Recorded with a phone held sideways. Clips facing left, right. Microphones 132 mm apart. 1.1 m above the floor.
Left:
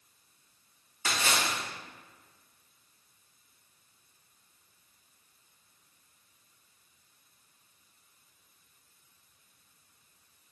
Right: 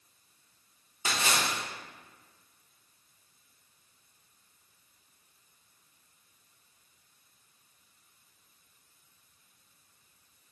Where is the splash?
20° right (ahead or behind), 1.0 m.